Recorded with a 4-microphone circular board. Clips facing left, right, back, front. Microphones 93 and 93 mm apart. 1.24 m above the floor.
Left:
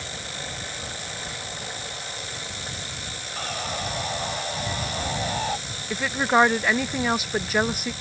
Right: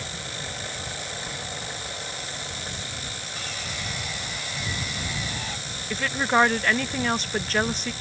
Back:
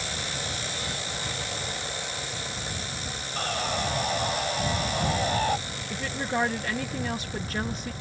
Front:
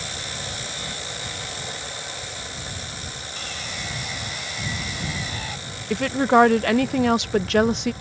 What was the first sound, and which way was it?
Sawing, 135° left.